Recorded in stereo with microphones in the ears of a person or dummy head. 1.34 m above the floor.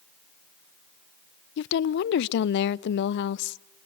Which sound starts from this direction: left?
A woman speaking, at 1.6 s.